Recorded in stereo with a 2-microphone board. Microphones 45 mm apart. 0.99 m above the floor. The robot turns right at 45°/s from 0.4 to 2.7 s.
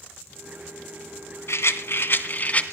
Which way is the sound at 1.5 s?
90° left.